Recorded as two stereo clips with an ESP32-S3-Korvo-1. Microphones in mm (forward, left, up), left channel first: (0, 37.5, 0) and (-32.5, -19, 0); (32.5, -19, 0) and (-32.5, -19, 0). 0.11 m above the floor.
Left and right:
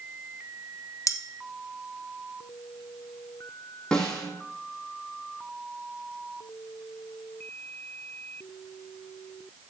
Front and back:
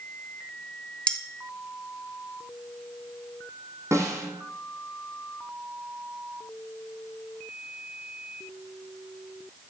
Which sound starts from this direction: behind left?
A snare drum, at 3.9 s.